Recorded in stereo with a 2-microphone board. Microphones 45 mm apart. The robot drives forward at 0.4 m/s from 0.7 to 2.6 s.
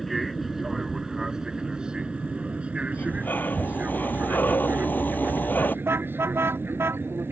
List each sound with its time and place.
0.0 s an aircraft: centre (ahead or behind); by 7.3 s 55° right (ahead or behind)
2.9 s breathing: 45° left (ahead or behind)
5.8 s a car horn: 60° right (ahead or behind)